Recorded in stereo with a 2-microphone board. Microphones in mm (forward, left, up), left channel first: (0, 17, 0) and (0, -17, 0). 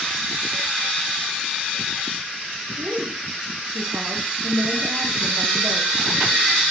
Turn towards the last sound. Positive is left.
turn(degrees=-70)  # may be behind; listen again after turning